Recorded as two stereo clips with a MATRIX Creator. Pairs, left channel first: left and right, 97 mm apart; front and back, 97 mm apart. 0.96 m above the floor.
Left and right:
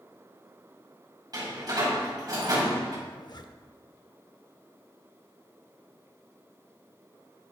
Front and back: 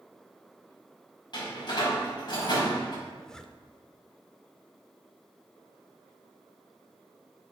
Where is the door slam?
40° right, 5.5 m.